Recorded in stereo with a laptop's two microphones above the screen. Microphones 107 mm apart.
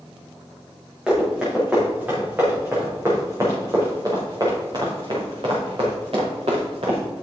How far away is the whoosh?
I don't hear a whoosh.